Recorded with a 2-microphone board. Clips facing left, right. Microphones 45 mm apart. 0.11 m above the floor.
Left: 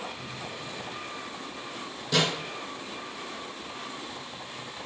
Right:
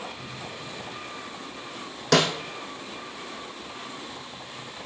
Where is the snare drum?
75° right (ahead or behind), 1.4 m.